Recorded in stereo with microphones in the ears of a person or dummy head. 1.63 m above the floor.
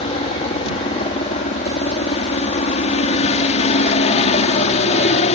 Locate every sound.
0.0 s a helicopter: 35° left (ahead or behind); by 5.3 s 40° left (ahead or behind)